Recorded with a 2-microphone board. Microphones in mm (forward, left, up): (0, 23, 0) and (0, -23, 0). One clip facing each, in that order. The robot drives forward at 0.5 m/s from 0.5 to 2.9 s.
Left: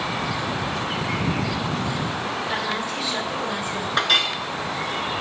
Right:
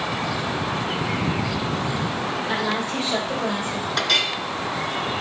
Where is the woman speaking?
25° right (ahead or behind), 4.5 m; by 3.9 s 20° right (ahead or behind), 4.5 m.